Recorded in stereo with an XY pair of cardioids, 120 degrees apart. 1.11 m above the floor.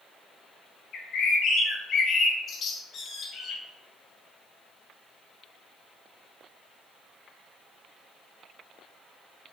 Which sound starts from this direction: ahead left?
A bird, at 0.9 s.